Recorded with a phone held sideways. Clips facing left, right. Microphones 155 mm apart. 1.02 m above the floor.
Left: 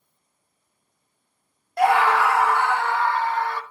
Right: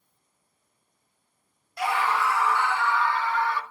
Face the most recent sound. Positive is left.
turn(degrees=45)  # may be behind; listen again after turning